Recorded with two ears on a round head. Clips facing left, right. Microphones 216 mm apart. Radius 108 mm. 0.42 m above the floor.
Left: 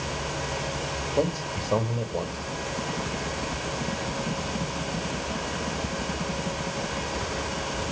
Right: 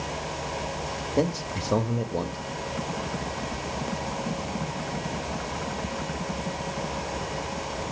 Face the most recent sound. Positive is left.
turn(degrees=-20)  # may be behind; listen again after turning